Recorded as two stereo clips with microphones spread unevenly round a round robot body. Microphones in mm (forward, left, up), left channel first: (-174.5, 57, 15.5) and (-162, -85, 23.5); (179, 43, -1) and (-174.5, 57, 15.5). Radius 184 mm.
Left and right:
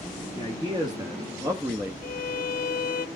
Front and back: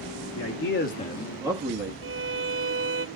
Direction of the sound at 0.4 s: 25° right.